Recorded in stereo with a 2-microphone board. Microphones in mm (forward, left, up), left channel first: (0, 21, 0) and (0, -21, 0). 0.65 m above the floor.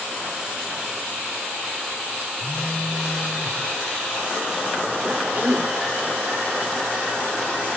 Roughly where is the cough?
Right.